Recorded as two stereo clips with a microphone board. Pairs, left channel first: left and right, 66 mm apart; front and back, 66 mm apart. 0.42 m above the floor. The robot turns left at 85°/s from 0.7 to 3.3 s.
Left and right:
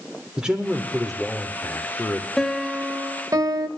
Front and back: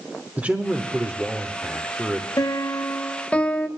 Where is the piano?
10° left, 0.6 m; by 3.7 s 70° right, 0.6 m.